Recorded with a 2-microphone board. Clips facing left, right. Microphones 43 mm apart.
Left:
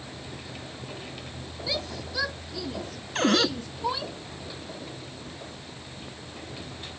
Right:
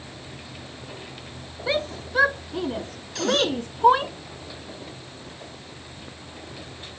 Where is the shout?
40° right (ahead or behind); by 4.1 s 50° right (ahead or behind).